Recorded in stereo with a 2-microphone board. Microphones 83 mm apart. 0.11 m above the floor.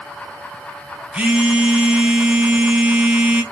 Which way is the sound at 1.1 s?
10° right (ahead or behind).